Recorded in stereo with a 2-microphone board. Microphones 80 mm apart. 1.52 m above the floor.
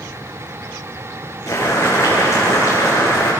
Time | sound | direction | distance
1.5 | boiling | 35° left (ahead or behind) | 9.5 m